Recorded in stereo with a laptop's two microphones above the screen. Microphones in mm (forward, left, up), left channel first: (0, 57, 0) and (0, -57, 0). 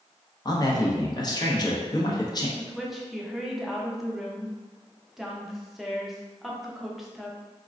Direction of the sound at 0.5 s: 35° left (ahead or behind).